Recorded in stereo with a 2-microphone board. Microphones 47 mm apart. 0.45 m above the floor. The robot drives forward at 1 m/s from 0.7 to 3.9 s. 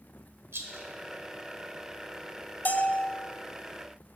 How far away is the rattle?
About 1.1 m.